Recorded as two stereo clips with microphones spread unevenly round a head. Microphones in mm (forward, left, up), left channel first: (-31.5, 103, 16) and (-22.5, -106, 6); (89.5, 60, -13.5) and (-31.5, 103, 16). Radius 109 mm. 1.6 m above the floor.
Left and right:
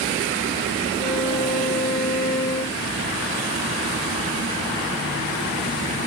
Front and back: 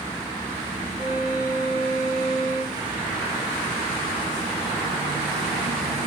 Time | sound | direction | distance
1.0 | a violin | 125° left | 2 m